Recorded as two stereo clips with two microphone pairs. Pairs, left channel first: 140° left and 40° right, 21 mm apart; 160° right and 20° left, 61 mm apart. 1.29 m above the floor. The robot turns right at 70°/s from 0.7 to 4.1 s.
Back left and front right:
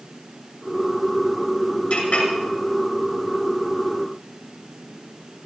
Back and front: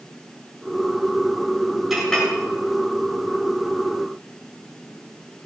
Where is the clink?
105° left, 6.5 m; by 2.3 s 130° left, 6.5 m.